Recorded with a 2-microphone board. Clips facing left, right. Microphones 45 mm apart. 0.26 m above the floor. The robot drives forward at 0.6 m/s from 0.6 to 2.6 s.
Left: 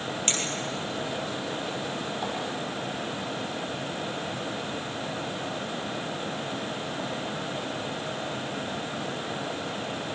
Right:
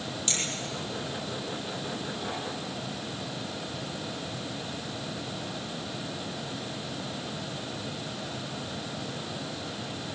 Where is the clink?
45° left (ahead or behind), 5.5 m; by 2.4 s 40° left (ahead or behind), 6.5 m.